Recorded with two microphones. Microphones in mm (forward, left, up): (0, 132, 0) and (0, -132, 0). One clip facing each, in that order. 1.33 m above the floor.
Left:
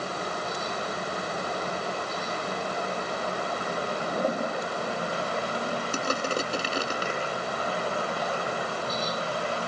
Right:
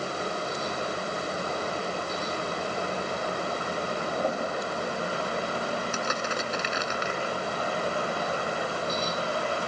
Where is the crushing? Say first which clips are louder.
Left 3 dB; 40° left (ahead or behind).